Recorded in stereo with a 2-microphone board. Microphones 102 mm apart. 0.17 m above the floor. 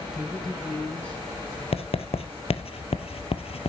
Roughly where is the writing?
Left.